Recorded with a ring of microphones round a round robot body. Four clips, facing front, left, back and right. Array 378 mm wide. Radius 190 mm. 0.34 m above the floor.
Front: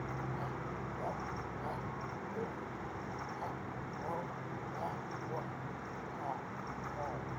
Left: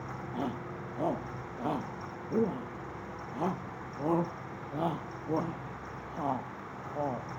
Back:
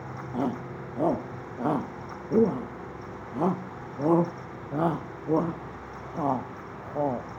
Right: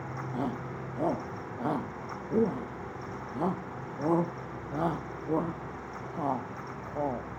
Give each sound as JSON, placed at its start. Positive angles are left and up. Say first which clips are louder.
{"t": 0.3, "sound": "a shout", "louder": "right 2 dB, back 11 dB", "azimuth_deg": -170}